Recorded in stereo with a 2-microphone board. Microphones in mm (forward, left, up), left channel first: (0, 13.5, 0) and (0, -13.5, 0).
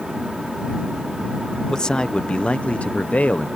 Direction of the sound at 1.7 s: 30° left (ahead or behind).